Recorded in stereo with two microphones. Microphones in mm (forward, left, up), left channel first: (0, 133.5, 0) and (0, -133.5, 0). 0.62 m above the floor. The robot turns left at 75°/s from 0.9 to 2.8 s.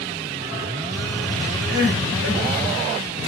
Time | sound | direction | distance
1.7 | crying | 35° right | 3 m